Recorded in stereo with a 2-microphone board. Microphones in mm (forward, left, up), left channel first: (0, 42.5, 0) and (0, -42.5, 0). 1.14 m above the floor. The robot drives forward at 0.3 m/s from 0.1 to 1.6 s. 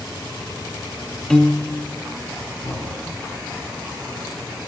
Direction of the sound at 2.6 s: 70° left (ahead or behind).